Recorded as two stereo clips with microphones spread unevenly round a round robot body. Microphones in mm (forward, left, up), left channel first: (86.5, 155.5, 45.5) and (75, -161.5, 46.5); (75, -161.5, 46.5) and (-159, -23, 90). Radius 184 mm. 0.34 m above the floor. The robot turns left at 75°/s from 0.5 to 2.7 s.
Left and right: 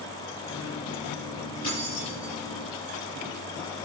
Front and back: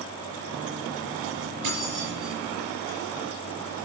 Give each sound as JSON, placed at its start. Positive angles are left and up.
{"t": 1.6, "sound": "keys jangling", "azimuth_deg": 145, "distance_m": 6.5}